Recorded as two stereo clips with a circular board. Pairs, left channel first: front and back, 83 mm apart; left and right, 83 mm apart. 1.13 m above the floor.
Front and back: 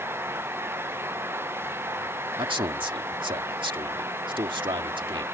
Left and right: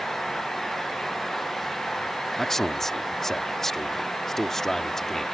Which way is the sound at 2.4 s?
175° left.